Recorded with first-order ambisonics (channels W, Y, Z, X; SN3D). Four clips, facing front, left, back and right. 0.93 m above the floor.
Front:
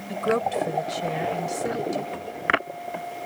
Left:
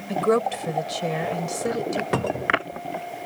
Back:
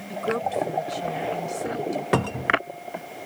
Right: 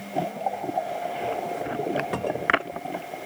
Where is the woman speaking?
75° left.